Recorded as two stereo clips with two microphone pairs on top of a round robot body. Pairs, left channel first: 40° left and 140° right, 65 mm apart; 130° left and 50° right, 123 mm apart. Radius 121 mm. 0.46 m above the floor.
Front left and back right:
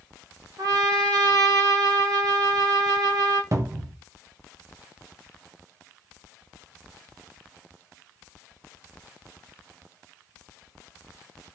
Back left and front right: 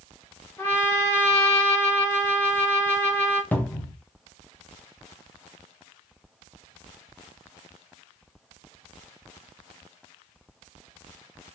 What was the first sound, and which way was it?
A trumpet, 160° right.